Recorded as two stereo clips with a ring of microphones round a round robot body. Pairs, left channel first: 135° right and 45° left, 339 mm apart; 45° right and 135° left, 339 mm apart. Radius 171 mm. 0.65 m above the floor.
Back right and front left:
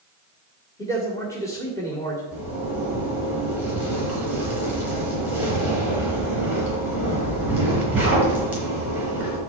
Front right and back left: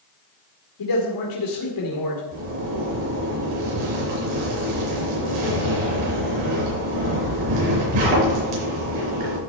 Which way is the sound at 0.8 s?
55° right.